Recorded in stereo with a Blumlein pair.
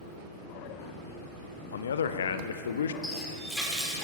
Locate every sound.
1.7 s a man speaking: 65° left, 0.6 m
3.0 s a running tap: straight ahead, 2.5 m